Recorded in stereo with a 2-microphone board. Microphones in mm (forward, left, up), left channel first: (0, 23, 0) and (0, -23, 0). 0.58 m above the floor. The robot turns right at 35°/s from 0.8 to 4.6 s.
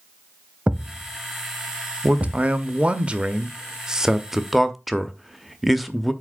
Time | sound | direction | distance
0.7 | a thud | 25° right (ahead or behind) | 0.6 m
2.0 | a man speaking | 95° right | 0.6 m